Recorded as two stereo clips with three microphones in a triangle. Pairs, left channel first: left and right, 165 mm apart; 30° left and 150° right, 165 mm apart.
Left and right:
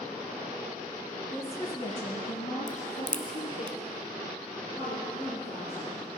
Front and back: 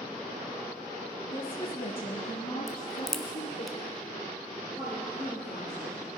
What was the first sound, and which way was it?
A woman speaking, 25° left.